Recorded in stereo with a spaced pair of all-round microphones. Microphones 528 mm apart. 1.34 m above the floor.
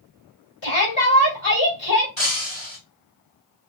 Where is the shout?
60° left (ahead or behind), 3 m.